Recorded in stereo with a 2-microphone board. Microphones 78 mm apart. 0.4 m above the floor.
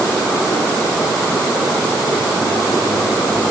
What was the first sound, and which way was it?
Only background noise.